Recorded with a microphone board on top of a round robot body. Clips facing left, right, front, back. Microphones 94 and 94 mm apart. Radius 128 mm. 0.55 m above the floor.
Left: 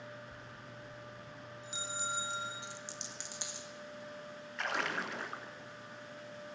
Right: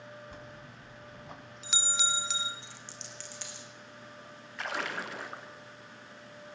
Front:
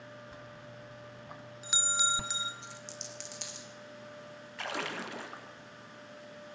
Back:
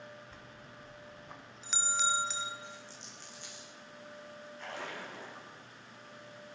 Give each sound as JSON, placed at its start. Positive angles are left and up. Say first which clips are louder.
{"t": 0.3, "sound": "a bell", "louder": "right 2 dB, front 4 dB", "azimuth_deg": -80, "distance_m": 1.4}
{"t": 2.6, "sound": "a dropped coin", "louder": "left 2 dB, front 2 dB", "azimuth_deg": 20, "distance_m": 2.5}
{"t": 4.6, "sound": "a splash", "louder": "right 1 dB, front 5 dB", "azimuth_deg": 0, "distance_m": 2.0}